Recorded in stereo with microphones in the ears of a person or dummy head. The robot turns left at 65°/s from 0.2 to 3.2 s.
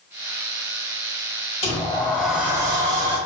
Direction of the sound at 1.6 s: 40° left.